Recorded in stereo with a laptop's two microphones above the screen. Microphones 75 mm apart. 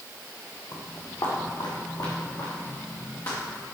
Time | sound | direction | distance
0.7 | footsteps | 65° left (ahead or behind) | 2.5 m